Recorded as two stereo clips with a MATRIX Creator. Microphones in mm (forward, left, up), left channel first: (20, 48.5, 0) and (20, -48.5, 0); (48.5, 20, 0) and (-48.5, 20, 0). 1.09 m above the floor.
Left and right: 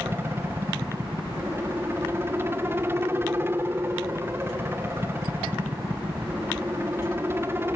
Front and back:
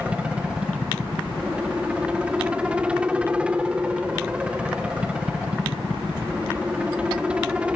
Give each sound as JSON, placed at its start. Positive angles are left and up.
{"t": 0.0, "sound": "a helicopter", "azimuth_deg": -115}